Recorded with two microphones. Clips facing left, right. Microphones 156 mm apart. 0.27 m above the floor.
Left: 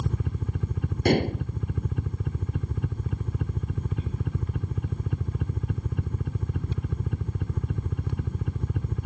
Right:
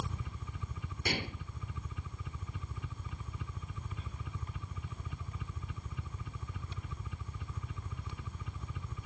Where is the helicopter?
60° left (ahead or behind).